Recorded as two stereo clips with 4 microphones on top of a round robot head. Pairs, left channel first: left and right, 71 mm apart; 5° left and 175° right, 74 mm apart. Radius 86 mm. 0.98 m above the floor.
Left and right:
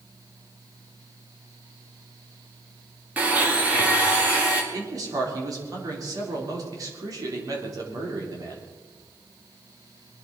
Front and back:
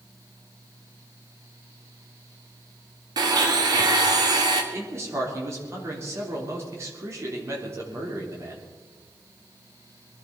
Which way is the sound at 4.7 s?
125° right.